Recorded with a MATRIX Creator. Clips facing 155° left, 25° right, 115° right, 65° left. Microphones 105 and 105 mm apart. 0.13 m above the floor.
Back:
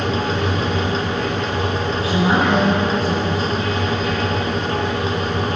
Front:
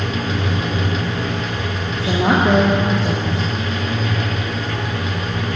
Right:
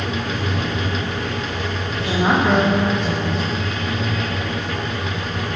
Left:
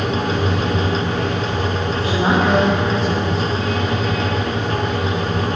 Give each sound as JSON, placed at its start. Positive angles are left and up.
{"t": 0.0, "sound": "running water", "azimuth_deg": 35, "distance_m": 8.0}
{"t": 1.9, "sound": "a woman speaking", "azimuth_deg": -25, "distance_m": 6.5}